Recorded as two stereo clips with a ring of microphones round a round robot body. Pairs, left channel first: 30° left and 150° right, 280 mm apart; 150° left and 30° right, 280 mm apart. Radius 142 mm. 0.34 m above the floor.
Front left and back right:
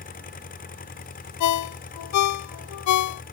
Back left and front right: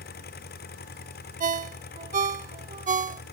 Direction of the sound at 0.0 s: 90° left.